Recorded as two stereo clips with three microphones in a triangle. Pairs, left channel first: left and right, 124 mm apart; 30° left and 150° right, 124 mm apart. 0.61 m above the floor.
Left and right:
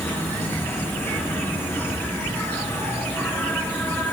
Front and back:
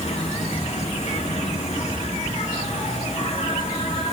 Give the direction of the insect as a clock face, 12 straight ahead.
11 o'clock.